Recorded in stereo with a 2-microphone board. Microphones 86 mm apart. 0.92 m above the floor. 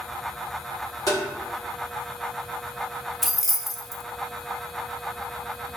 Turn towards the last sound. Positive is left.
turn(degrees=0)  # may be behind; listen again after turning